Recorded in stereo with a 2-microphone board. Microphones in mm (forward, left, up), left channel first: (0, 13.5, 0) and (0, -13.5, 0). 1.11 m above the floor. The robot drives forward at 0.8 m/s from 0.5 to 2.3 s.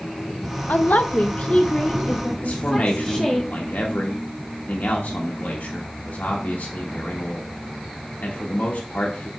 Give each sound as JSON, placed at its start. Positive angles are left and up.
{"t": 0.7, "sound": "a woman speaking", "side_deg": 80, "distance_m": 0.7}
{"t": 2.4, "sound": "a man speaking", "side_deg": 80, "distance_m": 1.6}